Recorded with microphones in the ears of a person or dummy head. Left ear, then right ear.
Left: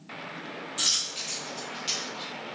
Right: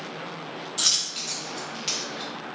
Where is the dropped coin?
10° right (ahead or behind), 1.3 m.